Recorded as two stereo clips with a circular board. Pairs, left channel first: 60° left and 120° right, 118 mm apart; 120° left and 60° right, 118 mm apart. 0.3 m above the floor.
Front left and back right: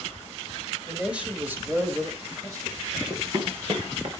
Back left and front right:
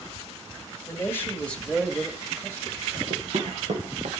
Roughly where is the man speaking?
Behind.